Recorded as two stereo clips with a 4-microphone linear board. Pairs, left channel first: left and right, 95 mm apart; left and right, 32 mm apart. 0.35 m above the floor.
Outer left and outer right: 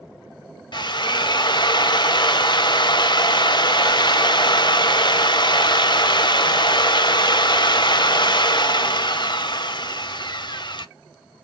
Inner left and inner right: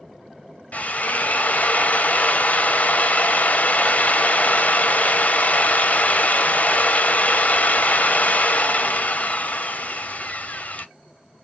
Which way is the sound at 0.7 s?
50° left (ahead or behind).